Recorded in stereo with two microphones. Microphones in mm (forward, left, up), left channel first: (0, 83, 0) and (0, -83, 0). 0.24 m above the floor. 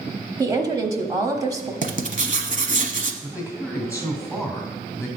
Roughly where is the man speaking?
Centre.